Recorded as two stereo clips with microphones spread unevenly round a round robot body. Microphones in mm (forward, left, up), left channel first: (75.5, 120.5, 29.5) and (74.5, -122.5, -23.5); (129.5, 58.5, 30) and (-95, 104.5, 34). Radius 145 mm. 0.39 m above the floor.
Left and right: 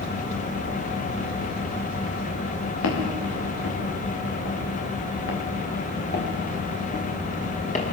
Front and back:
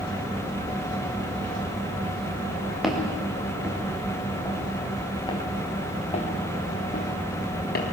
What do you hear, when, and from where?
2.8 s footsteps: 80° left, 5.5 m; by 7.9 s 30° left, 5 m